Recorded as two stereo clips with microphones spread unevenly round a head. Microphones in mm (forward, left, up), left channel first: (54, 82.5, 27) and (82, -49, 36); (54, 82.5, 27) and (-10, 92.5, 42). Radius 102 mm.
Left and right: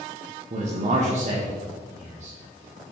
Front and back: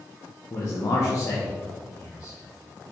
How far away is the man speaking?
About 1.1 m.